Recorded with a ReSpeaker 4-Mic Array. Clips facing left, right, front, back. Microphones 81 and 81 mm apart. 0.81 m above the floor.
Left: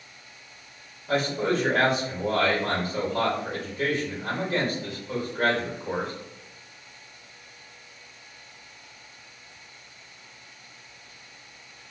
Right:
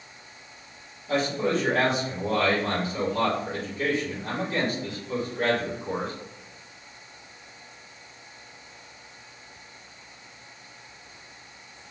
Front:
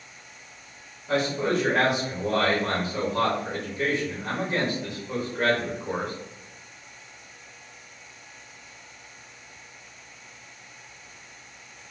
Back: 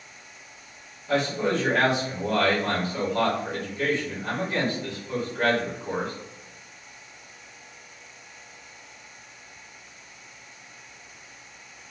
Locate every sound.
1.1 s a man speaking: 70° left, 1.4 m